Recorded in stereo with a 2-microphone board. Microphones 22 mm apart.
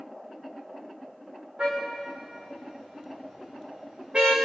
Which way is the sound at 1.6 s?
60° right (ahead or behind).